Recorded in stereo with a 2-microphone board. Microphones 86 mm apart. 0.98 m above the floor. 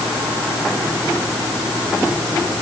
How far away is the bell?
I don't hear a bell.